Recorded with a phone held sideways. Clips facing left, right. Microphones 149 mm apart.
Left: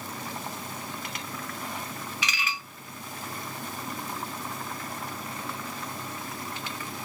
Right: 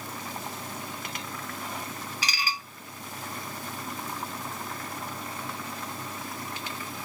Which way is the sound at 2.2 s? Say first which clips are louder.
Right 1 dB; 35° right (ahead or behind).